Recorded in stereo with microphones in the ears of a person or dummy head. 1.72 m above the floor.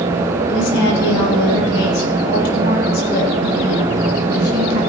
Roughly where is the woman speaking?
Left.